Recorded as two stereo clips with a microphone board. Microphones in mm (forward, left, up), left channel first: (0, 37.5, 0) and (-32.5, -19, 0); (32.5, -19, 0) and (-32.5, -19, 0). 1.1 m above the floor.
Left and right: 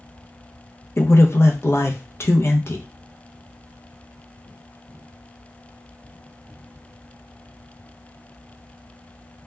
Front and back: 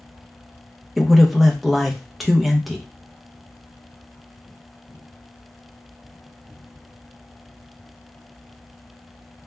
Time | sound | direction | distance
1.0 | a man speaking | 90° left | 0.5 m